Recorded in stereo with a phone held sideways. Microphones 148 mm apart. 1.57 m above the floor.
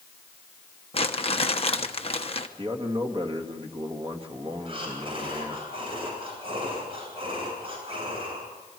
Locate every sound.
0.9 s crumpling: 40° left (ahead or behind), 1.2 m
2.6 s a man speaking: 40° right (ahead or behind), 2.5 m
4.7 s breathing: 40° right (ahead or behind), 9.5 m